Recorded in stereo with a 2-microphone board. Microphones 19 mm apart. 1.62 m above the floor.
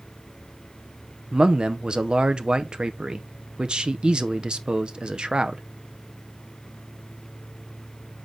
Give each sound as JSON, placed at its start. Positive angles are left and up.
{"t": 1.3, "sound": "a man speaking", "side_deg": -55, "distance_m": 0.7}